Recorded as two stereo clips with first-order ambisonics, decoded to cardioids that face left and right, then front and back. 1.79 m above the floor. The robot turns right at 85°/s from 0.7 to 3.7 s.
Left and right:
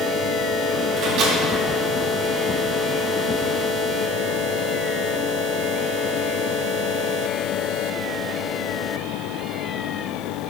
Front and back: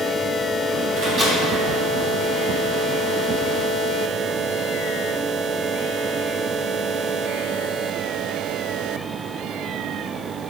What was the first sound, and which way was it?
A microwave, 135° right.